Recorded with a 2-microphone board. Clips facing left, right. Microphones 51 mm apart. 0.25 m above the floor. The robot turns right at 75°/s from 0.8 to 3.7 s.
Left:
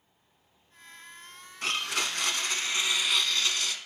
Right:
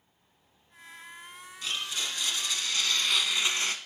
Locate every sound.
1.6 s a blender: 65° left, 0.7 m; by 3.8 s 140° right, 0.7 m